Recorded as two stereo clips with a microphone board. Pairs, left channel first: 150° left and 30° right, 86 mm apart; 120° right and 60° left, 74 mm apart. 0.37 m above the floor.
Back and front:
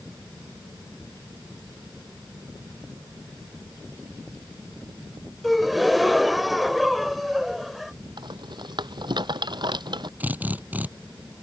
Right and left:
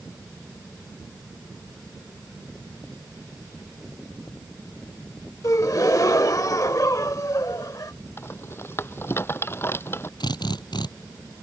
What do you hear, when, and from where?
5.4 s a gasp: 120° right
8.2 s a rattle: 60° right
10.2 s a drill: 100° right